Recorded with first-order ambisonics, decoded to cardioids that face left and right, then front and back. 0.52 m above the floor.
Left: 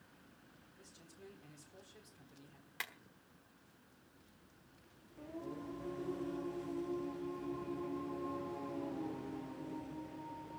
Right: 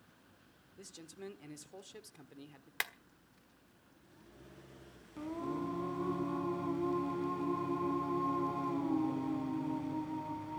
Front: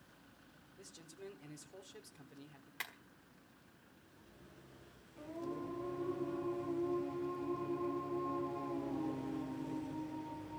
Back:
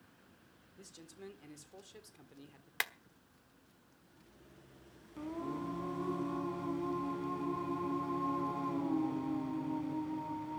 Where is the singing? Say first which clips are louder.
Right 8 dB, back 3 dB; 125° right, 2.5 m.